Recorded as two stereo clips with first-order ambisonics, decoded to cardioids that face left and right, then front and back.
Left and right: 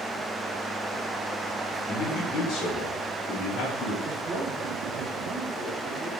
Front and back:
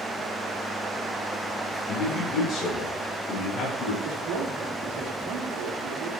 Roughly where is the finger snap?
No finger snap in this recording.